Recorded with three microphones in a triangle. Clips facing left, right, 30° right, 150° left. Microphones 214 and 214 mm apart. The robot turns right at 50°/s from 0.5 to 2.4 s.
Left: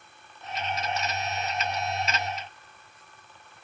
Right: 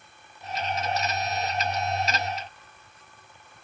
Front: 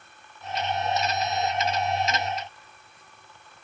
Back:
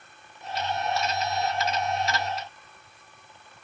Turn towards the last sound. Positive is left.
No sound to turn to.